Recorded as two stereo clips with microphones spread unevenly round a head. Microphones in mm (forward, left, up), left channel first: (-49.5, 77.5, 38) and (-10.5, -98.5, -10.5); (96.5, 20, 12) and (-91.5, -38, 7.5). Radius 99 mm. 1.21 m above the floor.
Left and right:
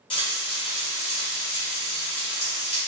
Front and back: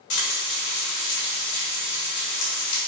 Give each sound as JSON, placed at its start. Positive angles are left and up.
{"t": 0.1, "sound": "frying", "azimuth_deg": 45, "distance_m": 1.8}